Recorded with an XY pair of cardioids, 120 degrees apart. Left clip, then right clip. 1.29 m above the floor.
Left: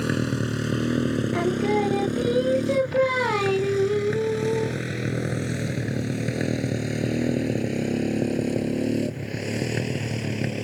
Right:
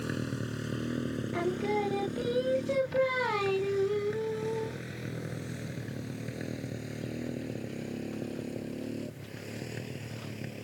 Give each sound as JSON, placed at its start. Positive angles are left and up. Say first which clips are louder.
{"t": 0.0, "sound": "a motorcycle", "louder": "left 10 dB", "azimuth_deg": 45}
{"t": 1.3, "sound": "singing", "louder": "left 6 dB", "azimuth_deg": 30}